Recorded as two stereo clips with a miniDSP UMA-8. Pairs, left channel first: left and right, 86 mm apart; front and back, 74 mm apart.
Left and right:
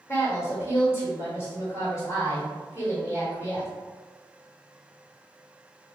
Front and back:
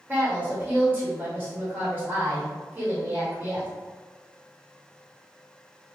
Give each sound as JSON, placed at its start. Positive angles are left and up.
{"t": 0.1, "sound": "a woman speaking", "azimuth_deg": 130, "distance_m": 1.6}